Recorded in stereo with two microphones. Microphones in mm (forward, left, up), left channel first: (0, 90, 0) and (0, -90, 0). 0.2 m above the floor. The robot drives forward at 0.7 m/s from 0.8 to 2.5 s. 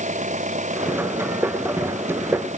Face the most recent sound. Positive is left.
turn(degrees=-40)  # may be behind; listen again after turning